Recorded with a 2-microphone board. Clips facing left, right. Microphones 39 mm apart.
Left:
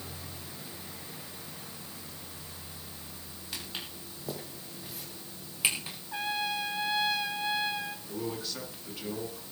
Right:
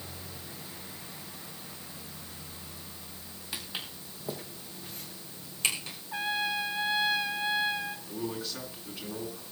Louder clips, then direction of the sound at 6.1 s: Right 1 dB; 5° right (ahead or behind).